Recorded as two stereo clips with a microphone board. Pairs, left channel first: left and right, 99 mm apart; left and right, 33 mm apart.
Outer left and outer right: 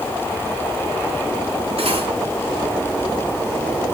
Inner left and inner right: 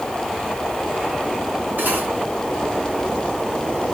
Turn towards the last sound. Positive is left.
turn(degrees=-75)  # may be behind; listen again after turning